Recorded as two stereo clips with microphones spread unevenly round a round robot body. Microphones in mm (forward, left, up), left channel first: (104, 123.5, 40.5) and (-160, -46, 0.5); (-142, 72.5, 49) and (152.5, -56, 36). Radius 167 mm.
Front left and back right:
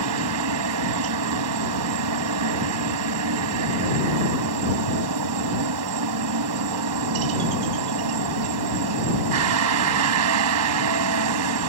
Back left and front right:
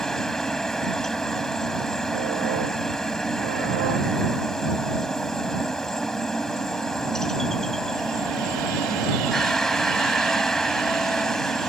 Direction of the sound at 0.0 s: 115° right.